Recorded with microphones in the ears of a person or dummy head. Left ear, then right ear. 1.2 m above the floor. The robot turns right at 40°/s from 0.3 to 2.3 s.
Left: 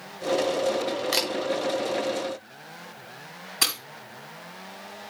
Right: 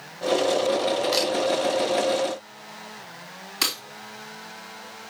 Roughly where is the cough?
I don't hear a cough.